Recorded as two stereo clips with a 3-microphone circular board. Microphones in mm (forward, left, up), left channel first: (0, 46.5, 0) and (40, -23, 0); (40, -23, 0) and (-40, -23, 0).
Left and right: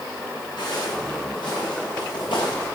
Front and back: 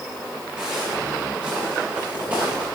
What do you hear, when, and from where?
0.6 s footsteps: 100° left, 8 m; by 2.7 s 110° left, 9 m